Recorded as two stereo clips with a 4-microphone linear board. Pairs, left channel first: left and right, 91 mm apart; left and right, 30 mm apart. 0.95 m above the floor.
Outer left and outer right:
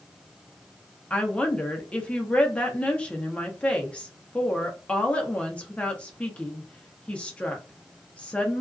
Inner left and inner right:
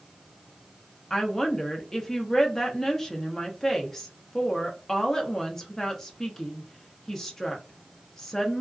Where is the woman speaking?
15° left (ahead or behind), 0.7 m.